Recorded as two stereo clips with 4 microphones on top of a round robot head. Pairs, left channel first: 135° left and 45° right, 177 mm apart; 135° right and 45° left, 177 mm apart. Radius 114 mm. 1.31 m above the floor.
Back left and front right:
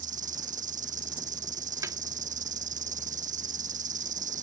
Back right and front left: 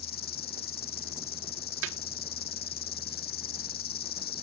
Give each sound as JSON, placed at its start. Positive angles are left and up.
{"t": 0.0, "sound": "an insect", "azimuth_deg": -95}
{"t": 1.8, "sound": "a snare drum", "azimuth_deg": 25}